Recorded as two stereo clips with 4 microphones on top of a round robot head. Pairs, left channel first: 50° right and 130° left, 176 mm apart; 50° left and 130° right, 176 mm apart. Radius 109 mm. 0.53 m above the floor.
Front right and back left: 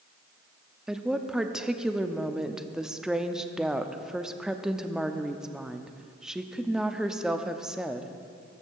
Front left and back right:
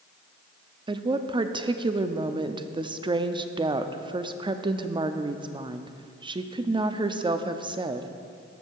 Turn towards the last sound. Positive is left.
turn(degrees=-150)